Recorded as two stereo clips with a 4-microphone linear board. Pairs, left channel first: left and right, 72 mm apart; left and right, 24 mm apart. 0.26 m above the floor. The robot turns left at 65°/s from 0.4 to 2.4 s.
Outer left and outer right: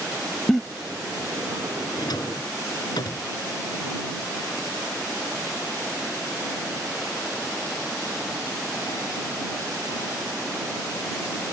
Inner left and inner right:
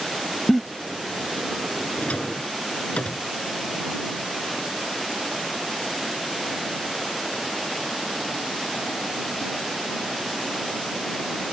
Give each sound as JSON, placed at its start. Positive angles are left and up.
{"t": 0.5, "sound": "a giggle", "side_deg": 0}
{"t": 2.0, "sound": "a drawer", "side_deg": 65}